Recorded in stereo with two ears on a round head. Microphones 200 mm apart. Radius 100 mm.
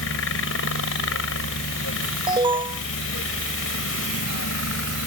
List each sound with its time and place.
0.0 s a helicopter: 60° left (ahead or behind)
2.3 s an alarm: 20° right (ahead or behind)